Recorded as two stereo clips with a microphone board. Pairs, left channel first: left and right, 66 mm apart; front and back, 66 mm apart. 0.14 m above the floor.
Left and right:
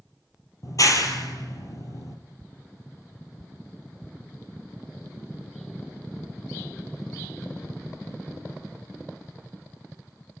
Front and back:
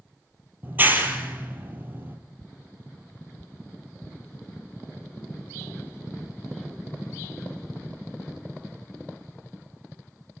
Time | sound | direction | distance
0.6 | a clap | 120° left | 3.5 m